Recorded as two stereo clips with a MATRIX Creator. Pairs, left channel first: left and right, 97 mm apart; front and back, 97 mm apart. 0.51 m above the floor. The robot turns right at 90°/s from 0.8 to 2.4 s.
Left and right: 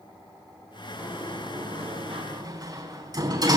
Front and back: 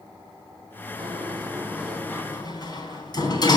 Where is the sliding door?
170° right, 3.5 m; by 3.6 s 45° right, 3.5 m.